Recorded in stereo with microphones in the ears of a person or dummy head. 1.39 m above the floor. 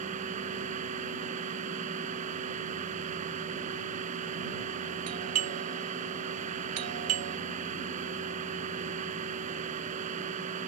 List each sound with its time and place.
0.0 s a machine running: 40° right (ahead or behind)
5.1 s a doorbell: 75° right (ahead or behind)